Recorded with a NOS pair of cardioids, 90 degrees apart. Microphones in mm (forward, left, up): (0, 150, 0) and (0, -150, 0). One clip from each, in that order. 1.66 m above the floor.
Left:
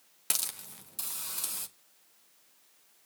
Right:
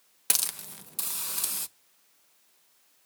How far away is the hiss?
About 0.8 m.